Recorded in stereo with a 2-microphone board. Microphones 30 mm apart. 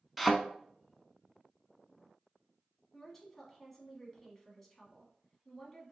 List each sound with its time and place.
0.2 s a thud: centre (ahead or behind), 0.6 m
2.9 s a woman speaking: 5° left (ahead or behind), 1.4 m